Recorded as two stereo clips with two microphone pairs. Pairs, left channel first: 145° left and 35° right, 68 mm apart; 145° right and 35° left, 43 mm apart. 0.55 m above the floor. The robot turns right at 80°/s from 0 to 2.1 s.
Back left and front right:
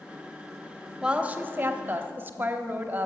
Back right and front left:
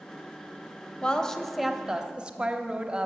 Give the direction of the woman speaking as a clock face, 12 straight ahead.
3 o'clock.